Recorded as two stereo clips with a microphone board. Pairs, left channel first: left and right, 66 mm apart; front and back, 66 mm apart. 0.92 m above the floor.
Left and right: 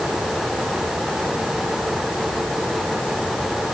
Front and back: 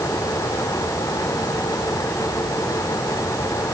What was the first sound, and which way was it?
Only background noise.